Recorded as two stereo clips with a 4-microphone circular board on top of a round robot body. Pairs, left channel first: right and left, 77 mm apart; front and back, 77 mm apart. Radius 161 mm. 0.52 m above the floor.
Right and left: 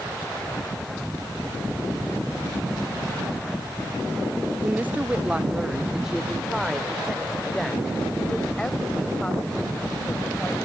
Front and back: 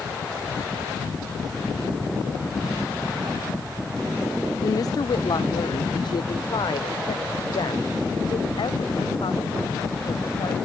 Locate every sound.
4.6 s a woman speaking: 25° left; by 10.6 s 15° right